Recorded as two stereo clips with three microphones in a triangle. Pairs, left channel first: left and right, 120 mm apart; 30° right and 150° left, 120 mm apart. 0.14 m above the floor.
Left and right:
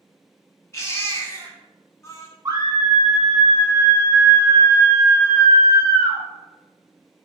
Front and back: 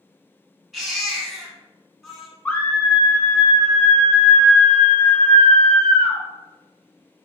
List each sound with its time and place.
0.7 s a baby crying: 65° left, 1.0 m
2.5 s a scream: 95° right, 1.2 m